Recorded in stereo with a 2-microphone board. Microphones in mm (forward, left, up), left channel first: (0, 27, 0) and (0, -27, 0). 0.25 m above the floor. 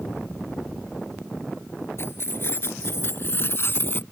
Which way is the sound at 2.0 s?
50° left (ahead or behind).